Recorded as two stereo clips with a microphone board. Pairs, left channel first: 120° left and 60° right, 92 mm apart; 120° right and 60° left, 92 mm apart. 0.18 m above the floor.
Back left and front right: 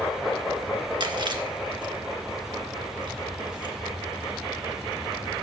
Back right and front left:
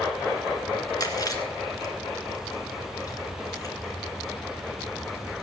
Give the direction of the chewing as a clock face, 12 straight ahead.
3 o'clock.